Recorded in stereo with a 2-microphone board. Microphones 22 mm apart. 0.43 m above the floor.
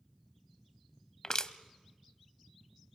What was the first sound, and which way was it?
Crushing, 30° left (ahead or behind).